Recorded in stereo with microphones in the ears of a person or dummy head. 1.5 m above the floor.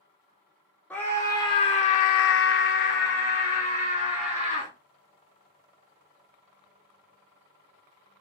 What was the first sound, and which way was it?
A scream, 10° left (ahead or behind).